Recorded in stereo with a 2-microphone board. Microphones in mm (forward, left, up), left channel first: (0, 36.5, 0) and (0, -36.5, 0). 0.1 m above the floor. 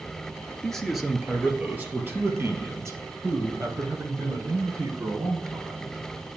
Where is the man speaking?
10° left (ahead or behind), 1.3 m; by 6.3 s 60° right (ahead or behind), 4 m.